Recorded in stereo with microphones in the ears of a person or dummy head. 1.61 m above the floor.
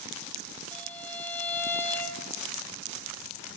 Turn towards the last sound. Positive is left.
turn(degrees=15)  # may be behind; listen again after turning